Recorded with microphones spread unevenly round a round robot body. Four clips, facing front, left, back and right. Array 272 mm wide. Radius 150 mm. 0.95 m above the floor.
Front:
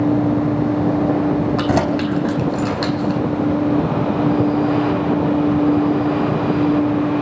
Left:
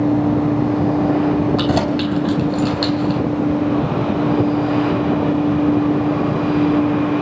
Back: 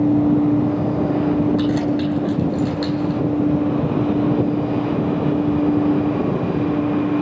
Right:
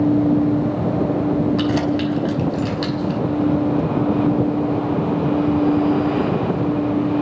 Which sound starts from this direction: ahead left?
Keys jangling, at 1.6 s.